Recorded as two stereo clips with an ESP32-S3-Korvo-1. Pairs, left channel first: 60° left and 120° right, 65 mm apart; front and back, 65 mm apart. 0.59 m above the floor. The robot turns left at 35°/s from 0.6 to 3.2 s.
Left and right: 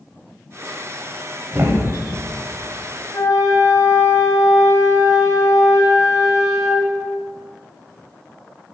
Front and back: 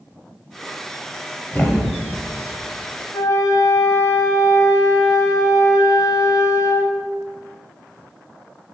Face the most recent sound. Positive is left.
turn(degrees=30)